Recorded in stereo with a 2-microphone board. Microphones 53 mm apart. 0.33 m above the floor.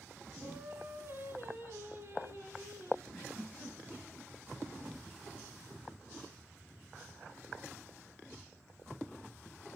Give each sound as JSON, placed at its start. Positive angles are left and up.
{"t": 0.4, "sound": "singing", "side_deg": -40, "distance_m": 1.4}
{"t": 3.1, "sound": "a giggle", "side_deg": 10, "distance_m": 2.5}